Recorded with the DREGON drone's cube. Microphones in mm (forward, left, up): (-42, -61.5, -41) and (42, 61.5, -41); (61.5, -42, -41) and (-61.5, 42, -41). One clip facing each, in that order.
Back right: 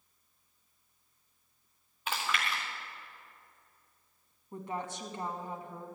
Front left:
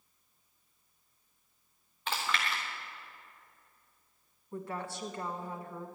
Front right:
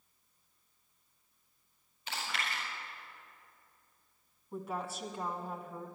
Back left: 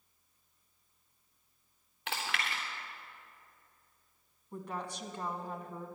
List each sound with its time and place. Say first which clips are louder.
2.1 s chewing: even, back left 2 dB; 155° left, 3.5 m
4.5 s a woman speaking: back right 1 dB, front right 2 dB; 110° right, 1.1 m